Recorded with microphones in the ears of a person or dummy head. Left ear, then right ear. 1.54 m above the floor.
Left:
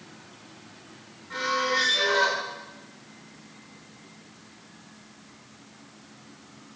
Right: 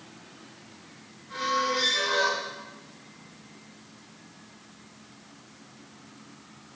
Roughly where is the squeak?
Left.